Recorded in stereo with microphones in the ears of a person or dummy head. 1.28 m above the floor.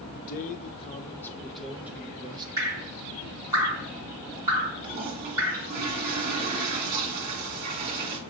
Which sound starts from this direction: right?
A toilet flushing, at 4.8 s.